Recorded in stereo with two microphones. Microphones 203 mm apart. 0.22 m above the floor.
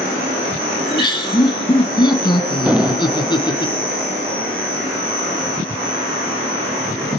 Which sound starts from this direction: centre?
An explosion, at 2.7 s.